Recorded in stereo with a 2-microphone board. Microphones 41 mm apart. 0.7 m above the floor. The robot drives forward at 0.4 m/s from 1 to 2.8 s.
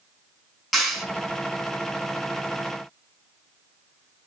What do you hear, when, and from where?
0.7 s a clap: 10° right (ahead or behind), 4 m